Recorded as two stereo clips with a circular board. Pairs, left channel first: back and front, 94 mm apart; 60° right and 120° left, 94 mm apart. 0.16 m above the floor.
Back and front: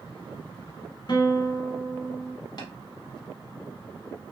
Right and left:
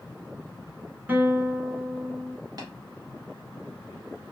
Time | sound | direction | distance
1.1 | a guitar | 175° right | 0.8 m
2.6 | tapping | 155° left | 1.5 m